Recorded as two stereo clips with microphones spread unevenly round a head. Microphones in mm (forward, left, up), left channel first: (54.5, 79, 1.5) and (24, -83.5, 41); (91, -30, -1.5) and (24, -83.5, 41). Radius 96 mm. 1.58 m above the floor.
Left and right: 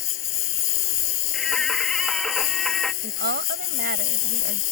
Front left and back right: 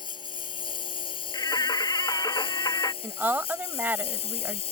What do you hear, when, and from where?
0.0 s a lawn mower: 100° left; by 4.7 s 85° left
1.3 s singing: 10° right
3.0 s a woman speaking: 75° right